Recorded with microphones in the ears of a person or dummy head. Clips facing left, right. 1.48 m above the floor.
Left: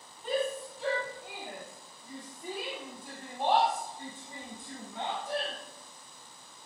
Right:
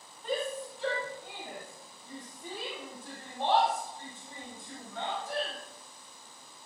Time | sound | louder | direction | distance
0.2 | a shout | left 2 dB | centre (ahead or behind) | 3 m